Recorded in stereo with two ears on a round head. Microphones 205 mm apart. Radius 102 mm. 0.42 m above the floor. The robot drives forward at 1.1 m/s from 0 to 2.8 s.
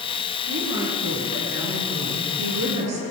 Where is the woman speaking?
55° right (ahead or behind), 6 m; by 3.0 s 75° right (ahead or behind), 5 m.